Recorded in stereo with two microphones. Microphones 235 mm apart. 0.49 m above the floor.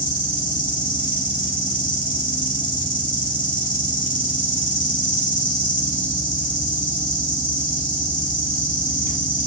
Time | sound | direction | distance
0.0 | an insect | 35° left (ahead or behind) | 0.8 m